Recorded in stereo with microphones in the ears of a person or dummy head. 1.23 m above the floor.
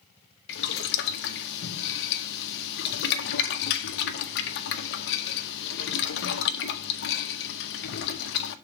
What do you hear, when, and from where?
0.5 s boiling: 65° left (ahead or behind), 0.7 m